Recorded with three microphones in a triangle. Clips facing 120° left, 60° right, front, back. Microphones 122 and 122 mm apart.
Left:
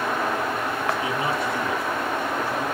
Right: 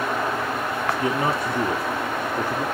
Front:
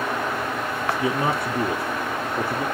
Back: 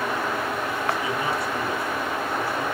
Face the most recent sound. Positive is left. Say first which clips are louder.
# right 2 dB, front 3 dB
turn(degrees=-25)